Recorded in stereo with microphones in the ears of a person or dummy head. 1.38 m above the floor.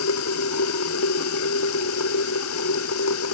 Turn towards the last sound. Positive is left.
turn(degrees=85)